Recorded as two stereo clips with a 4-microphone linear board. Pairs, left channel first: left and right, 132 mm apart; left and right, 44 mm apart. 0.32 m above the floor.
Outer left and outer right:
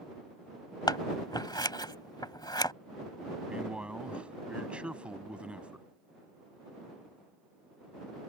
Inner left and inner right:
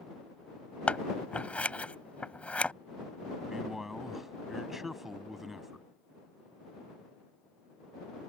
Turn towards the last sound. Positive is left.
turn(degrees=-10)  # may be behind; listen again after turning